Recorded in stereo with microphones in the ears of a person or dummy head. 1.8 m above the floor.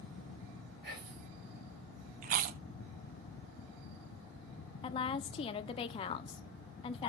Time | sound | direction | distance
0.8 | whispering | 50° right (ahead or behind) | 5 m
2.2 | chewing | 45° right (ahead or behind) | 0.6 m
4.8 | a woman speaking | 35° left (ahead or behind) | 0.8 m